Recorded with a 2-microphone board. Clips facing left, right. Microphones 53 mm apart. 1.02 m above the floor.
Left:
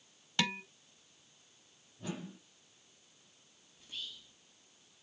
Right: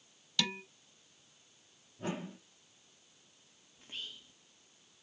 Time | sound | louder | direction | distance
0.4 | dishes clattering | left 2 dB | 35° left (ahead or behind) | 0.9 m
2.0 | a whoosh | right 4 dB | 45° right (ahead or behind) | 1.3 m
3.8 | whispering | right 1 dB | 35° right (ahead or behind) | 1.0 m